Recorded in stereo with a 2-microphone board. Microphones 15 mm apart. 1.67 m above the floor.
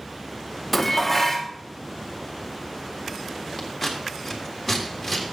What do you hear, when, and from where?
0.7 s dishes clattering: 5° left (ahead or behind), 0.8 m
3.6 s scissors: centre (ahead or behind), 1.8 m